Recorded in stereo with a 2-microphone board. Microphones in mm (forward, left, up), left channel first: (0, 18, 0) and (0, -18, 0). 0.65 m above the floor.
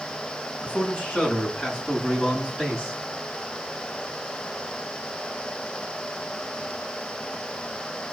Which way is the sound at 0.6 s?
35° left (ahead or behind).